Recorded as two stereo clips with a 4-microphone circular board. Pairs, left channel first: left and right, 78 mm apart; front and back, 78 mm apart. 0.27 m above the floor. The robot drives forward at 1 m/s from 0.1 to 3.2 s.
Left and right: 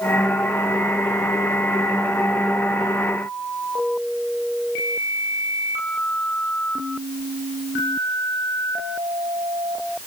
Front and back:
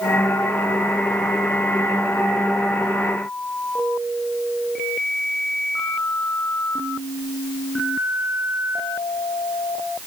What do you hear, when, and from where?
Only background noise.